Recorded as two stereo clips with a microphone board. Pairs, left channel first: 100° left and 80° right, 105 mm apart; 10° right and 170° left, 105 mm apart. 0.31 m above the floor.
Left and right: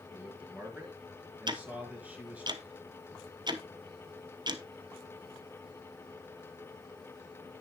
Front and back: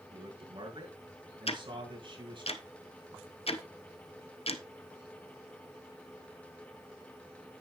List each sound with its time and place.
0.1 s a man speaking: 155° right, 4 m
1.5 s ticking: 30° right, 1.0 m